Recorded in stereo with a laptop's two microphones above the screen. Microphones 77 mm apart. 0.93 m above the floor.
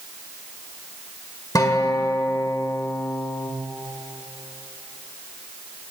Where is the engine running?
No engine running in this recording.